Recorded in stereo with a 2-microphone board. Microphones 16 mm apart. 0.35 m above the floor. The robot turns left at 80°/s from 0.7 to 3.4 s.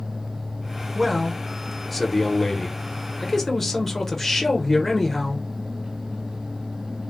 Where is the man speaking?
20° right (ahead or behind), 0.8 m; by 5.5 s 15° left (ahead or behind), 0.8 m.